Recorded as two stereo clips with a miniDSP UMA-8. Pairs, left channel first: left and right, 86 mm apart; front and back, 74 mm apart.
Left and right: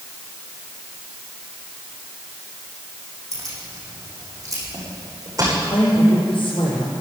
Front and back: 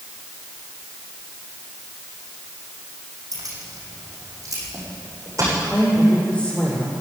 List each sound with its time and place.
3.3 s keys jangling: 140° right, 6.5 m; by 5.5 s 135° right, 8.5 m
5.5 s a woman speaking: 80° left, 6.5 m